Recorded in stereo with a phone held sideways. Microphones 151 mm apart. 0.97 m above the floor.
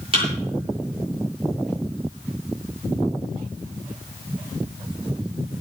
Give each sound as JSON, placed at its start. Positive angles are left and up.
{"t": 0.1, "sound": "a thud", "side_deg": -35, "distance_m": 7.5}